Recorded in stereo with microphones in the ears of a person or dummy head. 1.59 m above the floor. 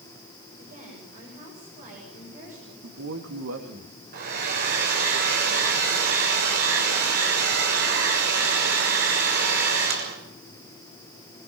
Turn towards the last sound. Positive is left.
turn(degrees=-55)  # may be behind; listen again after turning